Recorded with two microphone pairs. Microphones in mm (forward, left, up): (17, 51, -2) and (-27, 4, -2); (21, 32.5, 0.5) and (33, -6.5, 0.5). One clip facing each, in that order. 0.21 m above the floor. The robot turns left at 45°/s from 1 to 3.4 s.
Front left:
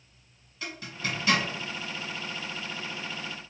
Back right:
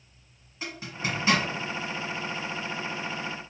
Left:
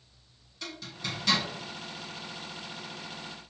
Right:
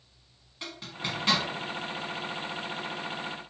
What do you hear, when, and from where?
0.6 s a zipper: 90° right, 1.2 m; by 1.4 s 110° right, 1.2 m